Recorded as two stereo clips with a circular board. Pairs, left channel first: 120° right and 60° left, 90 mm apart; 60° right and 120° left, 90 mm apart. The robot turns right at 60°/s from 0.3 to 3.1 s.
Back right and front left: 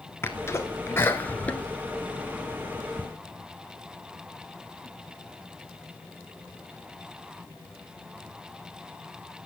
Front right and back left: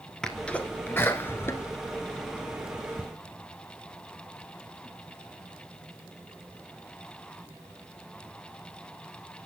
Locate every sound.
0.2 s a sneeze: 135° right, 1.4 m; by 3.0 s 30° left, 1.4 m